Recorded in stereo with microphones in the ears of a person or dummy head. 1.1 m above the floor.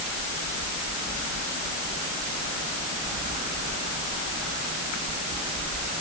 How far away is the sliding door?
No sliding door in this recording.